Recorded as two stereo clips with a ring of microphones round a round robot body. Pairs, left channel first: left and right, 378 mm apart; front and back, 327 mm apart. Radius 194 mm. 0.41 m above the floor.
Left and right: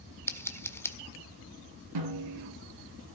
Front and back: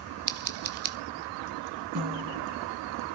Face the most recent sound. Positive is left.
turn(degrees=-125)